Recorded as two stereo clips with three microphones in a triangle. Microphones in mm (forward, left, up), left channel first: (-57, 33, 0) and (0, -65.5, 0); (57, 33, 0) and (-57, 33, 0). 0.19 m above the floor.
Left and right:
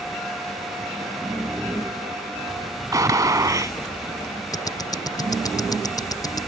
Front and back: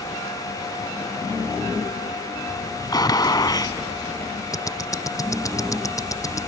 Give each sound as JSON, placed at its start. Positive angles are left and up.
{"t": 2.9, "sound": "a gunshot", "azimuth_deg": -25}
{"t": 4.5, "sound": "ticking", "azimuth_deg": 60}